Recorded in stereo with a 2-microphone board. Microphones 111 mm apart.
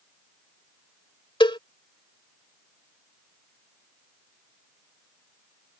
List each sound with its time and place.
1.4 s a cowbell: 45° left (ahead or behind)